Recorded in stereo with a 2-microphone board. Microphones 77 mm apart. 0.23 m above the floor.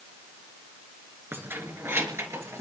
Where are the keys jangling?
30° right (ahead or behind), 2.5 m; by 2.6 s 40° right (ahead or behind), 3.5 m.